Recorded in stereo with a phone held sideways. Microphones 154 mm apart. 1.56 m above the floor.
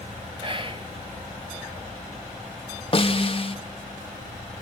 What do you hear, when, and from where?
0.4 s whispering: 35° right (ahead or behind), 1.7 m
2.9 s a snare drum: 40° left (ahead or behind), 1.3 m